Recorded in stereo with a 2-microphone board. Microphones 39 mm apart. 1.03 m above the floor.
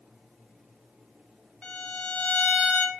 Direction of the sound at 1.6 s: 25° left (ahead or behind).